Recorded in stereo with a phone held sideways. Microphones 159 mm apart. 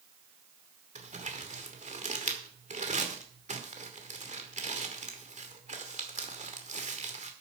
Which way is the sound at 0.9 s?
50° right (ahead or behind).